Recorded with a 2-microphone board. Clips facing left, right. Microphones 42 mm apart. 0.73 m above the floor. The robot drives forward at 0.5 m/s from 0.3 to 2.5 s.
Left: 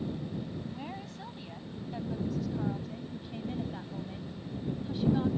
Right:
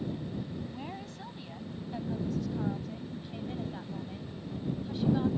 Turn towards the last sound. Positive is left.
turn(degrees=0)  # may be behind; listen again after turning